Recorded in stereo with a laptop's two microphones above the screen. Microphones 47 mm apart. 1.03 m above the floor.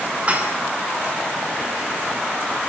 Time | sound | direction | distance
0.3 | dishes clattering | 30° right (ahead or behind) | 6.5 m